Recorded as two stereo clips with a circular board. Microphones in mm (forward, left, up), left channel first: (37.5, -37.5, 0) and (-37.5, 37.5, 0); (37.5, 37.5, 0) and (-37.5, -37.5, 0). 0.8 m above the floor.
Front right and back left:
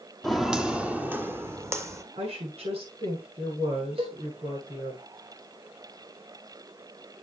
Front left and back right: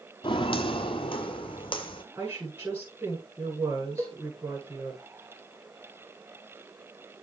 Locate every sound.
0.2 s footsteps: 45° left, 1.1 m; by 2.0 s 80° left, 1.7 m
2.1 s a woman speaking: 150° left, 9 m
4.0 s a cowbell: 165° left, 3.5 m